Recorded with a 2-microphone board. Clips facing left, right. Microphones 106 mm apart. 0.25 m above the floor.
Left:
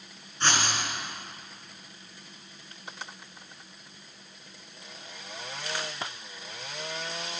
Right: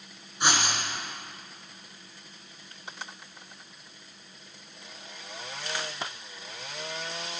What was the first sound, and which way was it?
Writing, 10° right (ahead or behind).